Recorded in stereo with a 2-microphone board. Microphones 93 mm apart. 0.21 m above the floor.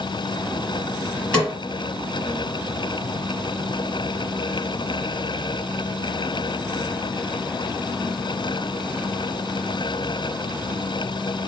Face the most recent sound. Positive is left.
turn(degrees=10)  # may be behind; listen again after turning